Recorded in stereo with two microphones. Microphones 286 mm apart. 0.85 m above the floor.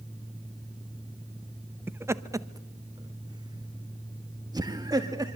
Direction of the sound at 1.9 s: 10° right (ahead or behind).